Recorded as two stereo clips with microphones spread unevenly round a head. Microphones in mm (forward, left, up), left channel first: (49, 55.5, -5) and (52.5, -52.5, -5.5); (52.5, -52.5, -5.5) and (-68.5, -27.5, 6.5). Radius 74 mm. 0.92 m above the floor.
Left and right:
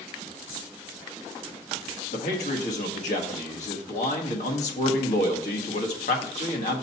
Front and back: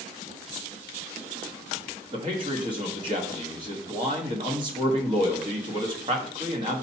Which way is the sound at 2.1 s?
105° left.